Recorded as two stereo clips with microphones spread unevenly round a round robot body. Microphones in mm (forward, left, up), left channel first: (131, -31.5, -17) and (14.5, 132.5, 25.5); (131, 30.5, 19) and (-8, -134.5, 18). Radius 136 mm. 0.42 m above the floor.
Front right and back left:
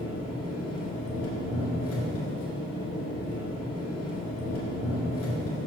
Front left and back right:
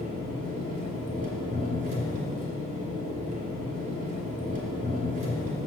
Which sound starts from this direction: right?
An engine running, at 0.0 s.